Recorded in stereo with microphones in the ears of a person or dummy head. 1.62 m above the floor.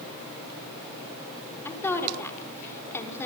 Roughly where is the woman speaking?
Centre.